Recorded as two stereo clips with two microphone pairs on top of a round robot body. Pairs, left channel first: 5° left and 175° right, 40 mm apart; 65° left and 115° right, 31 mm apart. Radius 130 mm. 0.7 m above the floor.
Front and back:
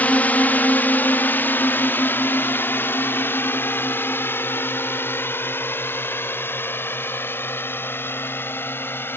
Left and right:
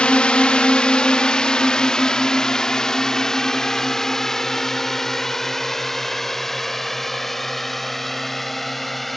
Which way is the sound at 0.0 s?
30° left.